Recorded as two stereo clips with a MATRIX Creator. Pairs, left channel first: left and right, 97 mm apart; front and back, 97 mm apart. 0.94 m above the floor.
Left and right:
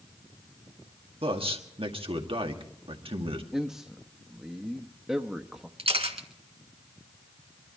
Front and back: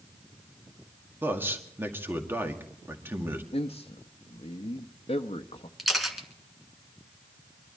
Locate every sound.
1.2 s a man speaking: 115° right, 1.8 m
3.5 s a man speaking: 5° right, 0.8 m
5.8 s a camera shutter: 90° right, 1.8 m